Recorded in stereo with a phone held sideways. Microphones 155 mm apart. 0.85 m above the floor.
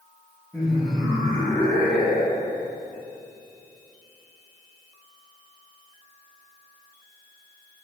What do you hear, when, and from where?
0.5 s laughter: centre (ahead or behind), 1.9 m; by 2.5 s 10° right (ahead or behind), 3 m